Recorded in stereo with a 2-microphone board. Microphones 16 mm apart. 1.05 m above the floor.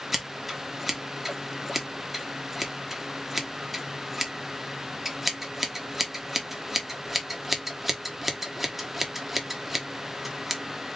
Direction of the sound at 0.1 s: 10° right (ahead or behind).